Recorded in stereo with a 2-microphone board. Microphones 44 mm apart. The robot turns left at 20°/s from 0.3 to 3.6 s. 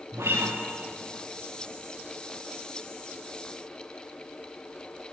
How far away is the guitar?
About 9.5 m.